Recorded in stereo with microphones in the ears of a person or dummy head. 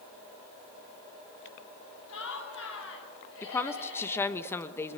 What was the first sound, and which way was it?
Laughter, 90° left.